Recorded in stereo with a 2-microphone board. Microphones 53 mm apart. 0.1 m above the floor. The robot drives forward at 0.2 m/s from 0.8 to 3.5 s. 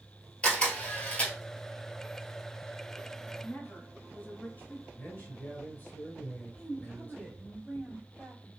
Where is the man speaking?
35° left (ahead or behind), 1.9 m.